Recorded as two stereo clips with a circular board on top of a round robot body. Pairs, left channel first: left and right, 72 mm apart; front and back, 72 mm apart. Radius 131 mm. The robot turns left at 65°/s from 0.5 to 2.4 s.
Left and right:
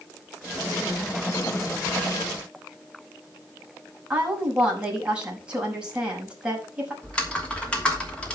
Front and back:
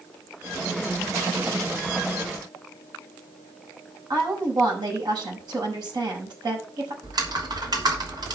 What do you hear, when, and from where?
4.1 s a woman speaking: 165° right, 6 m
7.0 s typing on a keyboard: 165° left, 3 m